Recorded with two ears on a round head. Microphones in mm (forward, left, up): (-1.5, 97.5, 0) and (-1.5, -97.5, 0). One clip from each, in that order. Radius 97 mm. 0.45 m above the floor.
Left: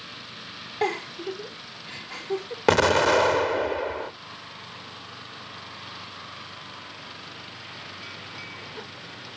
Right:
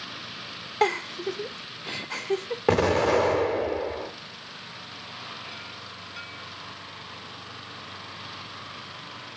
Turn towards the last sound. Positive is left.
turn(degrees=45)  # may be behind; listen again after turning